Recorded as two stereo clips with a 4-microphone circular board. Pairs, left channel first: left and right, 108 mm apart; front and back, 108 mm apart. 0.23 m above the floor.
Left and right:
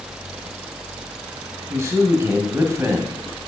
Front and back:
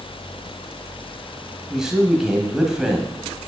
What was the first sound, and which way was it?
A man speaking, 100° right.